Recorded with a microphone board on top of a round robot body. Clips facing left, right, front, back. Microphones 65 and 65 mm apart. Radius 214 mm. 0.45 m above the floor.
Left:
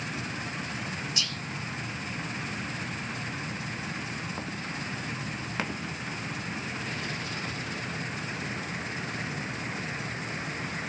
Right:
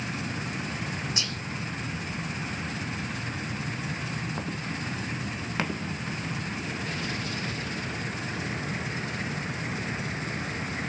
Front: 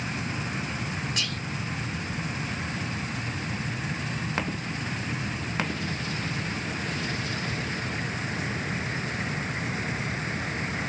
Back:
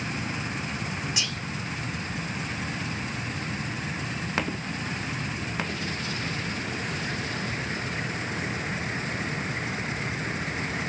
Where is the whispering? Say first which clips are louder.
Right 1 dB, even; 105° right, 0.8 m.